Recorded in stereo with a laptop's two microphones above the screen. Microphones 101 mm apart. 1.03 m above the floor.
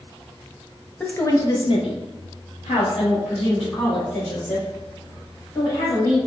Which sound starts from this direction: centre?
A woman speaking, at 1.0 s.